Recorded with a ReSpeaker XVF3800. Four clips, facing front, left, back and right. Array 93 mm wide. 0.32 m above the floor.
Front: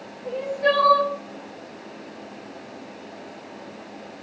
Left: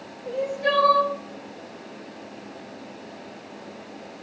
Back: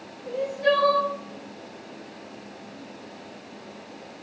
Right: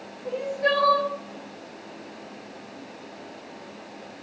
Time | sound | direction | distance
0.2 | crying | 40° right | 1.2 m